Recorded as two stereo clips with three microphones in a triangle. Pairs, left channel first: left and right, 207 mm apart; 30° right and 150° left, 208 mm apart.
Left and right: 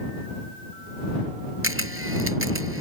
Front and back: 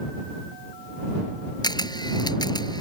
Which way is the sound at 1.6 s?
100° right.